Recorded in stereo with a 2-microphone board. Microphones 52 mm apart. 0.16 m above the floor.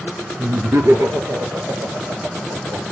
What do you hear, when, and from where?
0.4 s laughter: 55° right (ahead or behind), 2.5 m; by 2.8 s 60° right (ahead or behind), 3 m